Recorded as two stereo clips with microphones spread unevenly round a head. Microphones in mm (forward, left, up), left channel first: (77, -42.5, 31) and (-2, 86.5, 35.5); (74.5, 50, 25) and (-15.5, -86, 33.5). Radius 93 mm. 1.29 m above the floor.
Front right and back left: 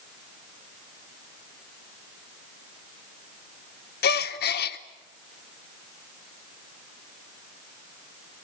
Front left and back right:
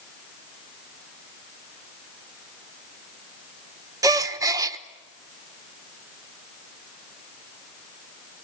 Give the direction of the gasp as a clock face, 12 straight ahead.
2 o'clock.